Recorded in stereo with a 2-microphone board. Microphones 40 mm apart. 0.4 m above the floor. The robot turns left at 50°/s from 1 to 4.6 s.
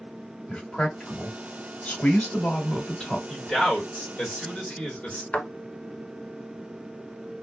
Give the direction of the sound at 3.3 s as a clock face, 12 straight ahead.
6 o'clock.